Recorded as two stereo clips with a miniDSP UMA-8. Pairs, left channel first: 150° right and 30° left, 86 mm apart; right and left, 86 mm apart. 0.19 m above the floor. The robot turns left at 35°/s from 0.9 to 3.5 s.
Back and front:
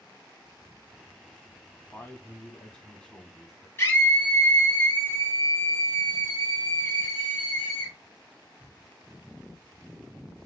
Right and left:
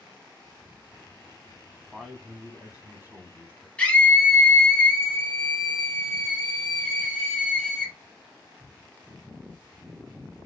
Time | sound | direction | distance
1.9 | a man speaking | 175° left | 1.1 m
3.8 | a scream | 145° right | 1.1 m